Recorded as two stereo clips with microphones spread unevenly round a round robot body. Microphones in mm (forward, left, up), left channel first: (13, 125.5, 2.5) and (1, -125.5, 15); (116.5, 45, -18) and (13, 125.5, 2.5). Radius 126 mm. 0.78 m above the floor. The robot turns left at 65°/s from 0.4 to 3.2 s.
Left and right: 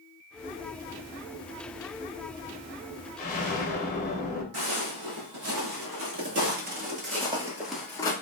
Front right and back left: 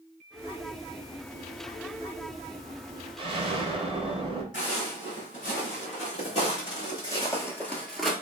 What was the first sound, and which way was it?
An explosion, 110° left.